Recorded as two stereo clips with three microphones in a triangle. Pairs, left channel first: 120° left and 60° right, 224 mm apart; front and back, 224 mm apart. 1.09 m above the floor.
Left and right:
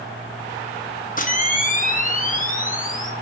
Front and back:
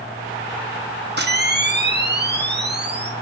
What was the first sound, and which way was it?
A camera shutter, 160° left.